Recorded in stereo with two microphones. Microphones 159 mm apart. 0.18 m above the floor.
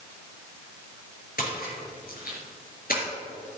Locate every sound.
1.4 s a splash: 65° left (ahead or behind), 3.5 m